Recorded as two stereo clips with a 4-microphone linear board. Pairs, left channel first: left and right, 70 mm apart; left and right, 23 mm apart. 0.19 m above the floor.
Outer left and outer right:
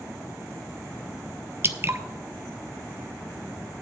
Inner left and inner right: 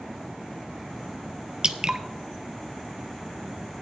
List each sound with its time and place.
1.6 s dripping: 40° right (ahead or behind), 0.6 m